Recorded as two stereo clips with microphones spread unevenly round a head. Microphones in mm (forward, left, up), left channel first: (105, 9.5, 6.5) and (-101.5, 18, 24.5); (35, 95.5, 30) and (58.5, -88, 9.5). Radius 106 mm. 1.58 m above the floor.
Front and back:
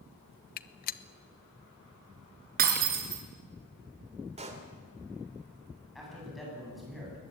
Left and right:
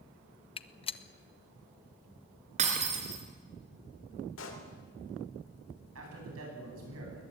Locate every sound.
0.6 s a gunshot: 45° left, 0.8 m
2.6 s breaking glass: 145° right, 2.5 m
4.4 s a pop: 120° left, 3 m
6.0 s a man speaking: 95° right, 10 m